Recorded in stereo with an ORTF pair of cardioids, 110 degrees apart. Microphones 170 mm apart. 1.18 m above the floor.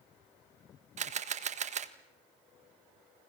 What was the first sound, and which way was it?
A camera shutter, 45° right.